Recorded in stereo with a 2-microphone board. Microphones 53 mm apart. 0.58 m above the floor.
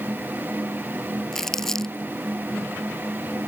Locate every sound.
1.3 s crumpling: 5° left (ahead or behind)